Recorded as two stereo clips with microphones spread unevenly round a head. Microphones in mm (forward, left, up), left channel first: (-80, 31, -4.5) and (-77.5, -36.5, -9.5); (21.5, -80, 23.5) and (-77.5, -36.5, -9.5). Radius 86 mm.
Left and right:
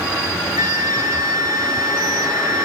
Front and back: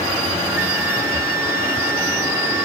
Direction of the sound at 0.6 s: 125° right.